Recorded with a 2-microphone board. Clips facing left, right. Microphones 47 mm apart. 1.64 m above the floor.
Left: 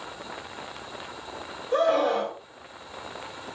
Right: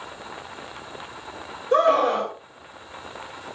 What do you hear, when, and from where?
1.7 s a scream: 85° right, 4 m